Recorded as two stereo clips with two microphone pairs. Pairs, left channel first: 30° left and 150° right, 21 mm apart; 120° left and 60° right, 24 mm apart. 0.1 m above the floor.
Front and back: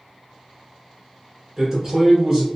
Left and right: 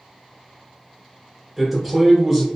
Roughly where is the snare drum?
No snare drum in this recording.